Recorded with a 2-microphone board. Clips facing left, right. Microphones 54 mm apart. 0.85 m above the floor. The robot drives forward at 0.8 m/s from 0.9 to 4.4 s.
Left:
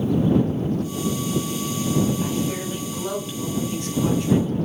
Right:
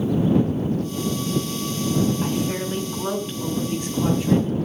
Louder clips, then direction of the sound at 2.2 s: Right 1 dB; 15° right (ahead or behind).